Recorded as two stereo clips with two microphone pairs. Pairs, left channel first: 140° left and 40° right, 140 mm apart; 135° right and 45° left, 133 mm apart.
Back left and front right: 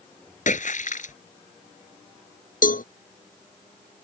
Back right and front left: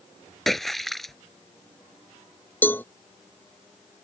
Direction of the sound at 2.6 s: 150° left.